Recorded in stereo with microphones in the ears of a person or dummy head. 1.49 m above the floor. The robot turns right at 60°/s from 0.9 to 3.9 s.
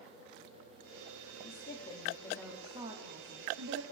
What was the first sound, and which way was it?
A woman speaking, 125° left.